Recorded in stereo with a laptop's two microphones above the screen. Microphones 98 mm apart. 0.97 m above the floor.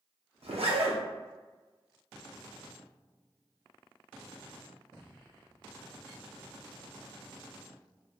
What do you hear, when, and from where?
0.4 s a zipper: 75° right (ahead or behind), 0.7 m